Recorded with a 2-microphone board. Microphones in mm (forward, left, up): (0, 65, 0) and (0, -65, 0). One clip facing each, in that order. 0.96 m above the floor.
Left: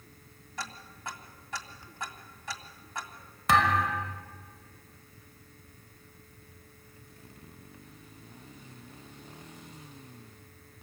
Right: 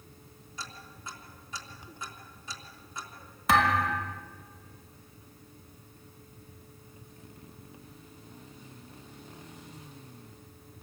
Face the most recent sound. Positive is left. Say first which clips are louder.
# even
turn(degrees=0)  # may be behind; listen again after turning